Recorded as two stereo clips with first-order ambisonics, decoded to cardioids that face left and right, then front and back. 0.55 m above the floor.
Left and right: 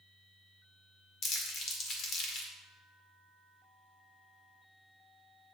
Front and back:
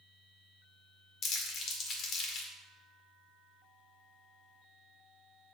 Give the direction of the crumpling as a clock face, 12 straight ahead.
10 o'clock.